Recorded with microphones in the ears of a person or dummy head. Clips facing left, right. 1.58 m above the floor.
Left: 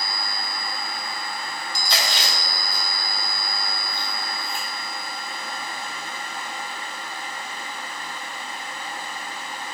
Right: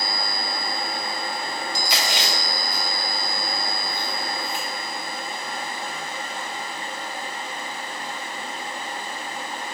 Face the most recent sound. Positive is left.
turn(degrees=-5)  # may be behind; listen again after turning